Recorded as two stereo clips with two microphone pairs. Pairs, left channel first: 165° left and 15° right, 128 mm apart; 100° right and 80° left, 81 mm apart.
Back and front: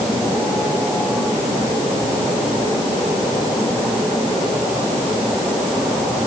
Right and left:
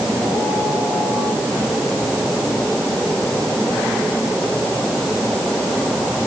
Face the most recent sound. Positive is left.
No sound to turn to.